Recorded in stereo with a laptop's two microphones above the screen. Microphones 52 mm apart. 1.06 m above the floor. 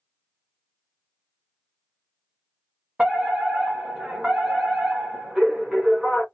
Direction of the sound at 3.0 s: 15° right (ahead or behind).